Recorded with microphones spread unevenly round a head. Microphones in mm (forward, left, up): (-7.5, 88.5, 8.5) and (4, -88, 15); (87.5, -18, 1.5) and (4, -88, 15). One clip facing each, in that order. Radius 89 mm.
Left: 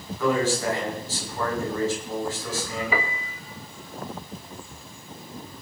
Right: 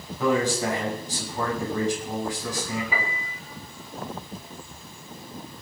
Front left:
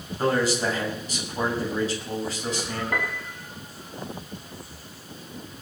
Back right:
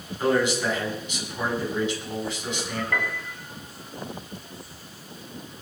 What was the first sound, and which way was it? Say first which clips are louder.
A man speaking: even, back right 1 dB; 10° right.